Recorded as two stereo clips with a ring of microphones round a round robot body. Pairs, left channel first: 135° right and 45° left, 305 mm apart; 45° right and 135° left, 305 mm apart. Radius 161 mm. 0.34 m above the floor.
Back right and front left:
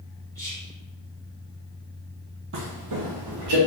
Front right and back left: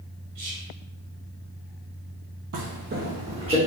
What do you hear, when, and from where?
0.3 s whispering: 145° left, 1.9 m
2.5 s footsteps: 95° left, 0.6 m; by 3.6 s 60° left, 1.3 m